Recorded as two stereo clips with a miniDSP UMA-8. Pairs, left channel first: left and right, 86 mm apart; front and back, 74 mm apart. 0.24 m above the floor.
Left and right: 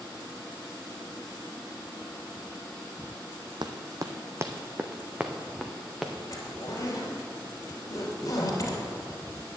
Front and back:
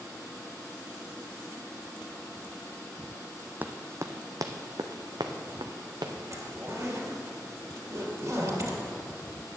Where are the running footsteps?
115° right, 0.7 m; by 6.1 s 175° right, 1.6 m.